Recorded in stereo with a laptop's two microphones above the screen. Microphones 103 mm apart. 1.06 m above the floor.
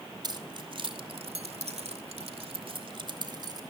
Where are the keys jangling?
45° right (ahead or behind), 2.5 m; by 3.6 s 40° right (ahead or behind), 3 m.